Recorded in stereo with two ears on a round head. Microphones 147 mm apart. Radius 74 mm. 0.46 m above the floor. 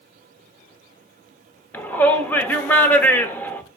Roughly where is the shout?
Centre.